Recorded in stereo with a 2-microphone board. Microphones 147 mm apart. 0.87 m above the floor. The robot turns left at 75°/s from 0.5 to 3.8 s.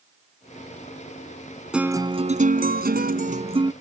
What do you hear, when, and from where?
1.7 s a guitar: 5° right; by 3.7 s 155° right